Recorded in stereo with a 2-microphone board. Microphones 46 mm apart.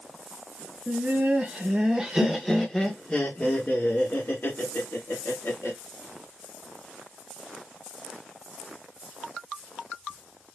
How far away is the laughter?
About 1.2 m.